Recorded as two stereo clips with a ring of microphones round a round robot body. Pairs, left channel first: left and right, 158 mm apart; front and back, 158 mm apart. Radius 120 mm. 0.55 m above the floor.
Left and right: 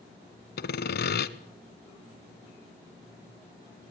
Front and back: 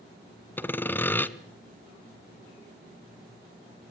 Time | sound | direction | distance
0.6 | sawing | 80° left | 1.2 m